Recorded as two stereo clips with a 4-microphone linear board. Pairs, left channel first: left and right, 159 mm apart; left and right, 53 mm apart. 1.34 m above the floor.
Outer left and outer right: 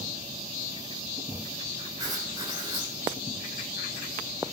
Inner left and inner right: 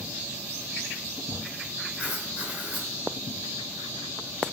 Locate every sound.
2.0 s writing: 25° right (ahead or behind), 3 m